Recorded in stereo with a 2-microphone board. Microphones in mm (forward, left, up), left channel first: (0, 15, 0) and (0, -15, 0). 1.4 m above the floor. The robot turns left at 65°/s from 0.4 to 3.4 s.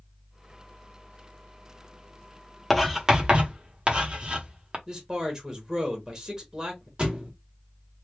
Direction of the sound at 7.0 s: 35° right (ahead or behind).